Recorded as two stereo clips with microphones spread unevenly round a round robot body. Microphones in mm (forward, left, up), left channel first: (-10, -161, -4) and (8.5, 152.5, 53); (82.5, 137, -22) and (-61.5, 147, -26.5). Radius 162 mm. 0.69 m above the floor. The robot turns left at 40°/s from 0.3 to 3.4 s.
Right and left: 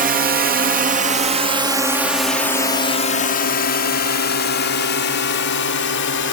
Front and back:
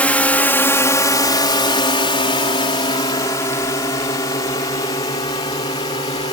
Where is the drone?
55° left; by 6.3 s 65° right.